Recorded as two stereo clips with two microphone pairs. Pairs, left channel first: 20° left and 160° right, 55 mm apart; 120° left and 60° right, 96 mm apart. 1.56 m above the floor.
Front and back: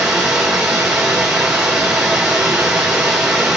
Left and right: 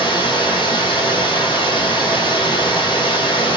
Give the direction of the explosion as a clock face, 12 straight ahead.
I don't hear an explosion.